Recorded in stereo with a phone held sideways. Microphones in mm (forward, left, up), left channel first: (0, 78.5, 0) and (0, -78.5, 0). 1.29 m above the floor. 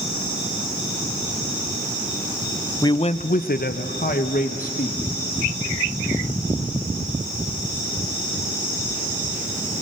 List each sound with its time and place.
2.8 s a man speaking: 25° left (ahead or behind), 0.5 m; by 5.0 s 60° left (ahead or behind), 1.6 m